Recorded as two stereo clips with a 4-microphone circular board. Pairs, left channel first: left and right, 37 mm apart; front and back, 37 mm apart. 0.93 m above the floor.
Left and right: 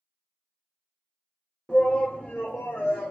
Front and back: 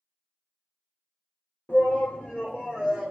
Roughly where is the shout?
Ahead left.